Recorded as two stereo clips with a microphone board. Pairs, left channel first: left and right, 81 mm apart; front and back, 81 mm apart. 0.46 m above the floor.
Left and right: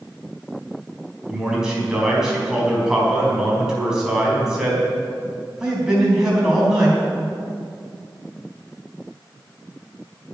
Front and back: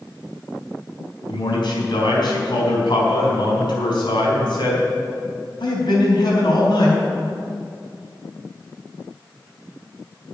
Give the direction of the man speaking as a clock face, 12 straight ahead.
12 o'clock.